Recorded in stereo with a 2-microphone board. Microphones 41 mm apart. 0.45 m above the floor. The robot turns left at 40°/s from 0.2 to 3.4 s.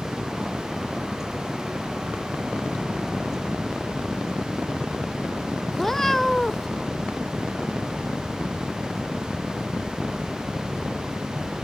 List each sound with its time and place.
5.7 s a cat meowing: 10° left (ahead or behind)